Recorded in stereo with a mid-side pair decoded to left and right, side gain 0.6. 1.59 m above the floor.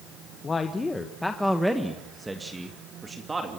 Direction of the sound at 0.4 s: 25° left.